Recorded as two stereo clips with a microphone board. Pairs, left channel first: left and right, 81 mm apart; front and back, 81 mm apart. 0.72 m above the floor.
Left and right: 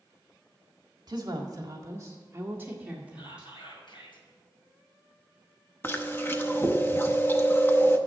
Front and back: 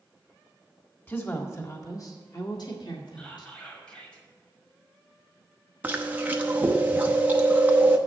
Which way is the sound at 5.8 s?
130° left.